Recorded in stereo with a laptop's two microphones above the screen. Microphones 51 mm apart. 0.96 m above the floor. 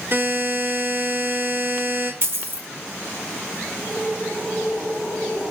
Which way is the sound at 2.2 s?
50° right (ahead or behind).